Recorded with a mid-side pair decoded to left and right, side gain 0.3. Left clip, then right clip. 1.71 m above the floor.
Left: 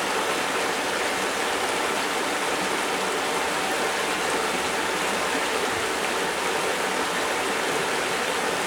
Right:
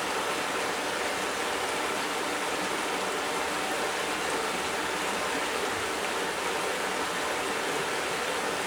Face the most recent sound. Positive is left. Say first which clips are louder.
# left 5 dB
turn(degrees=55)